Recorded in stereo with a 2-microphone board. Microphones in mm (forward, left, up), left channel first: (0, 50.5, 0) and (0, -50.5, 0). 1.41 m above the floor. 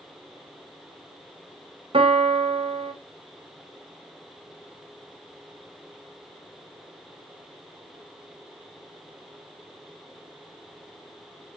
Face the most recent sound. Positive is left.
turn(degrees=-65)  # may be behind; listen again after turning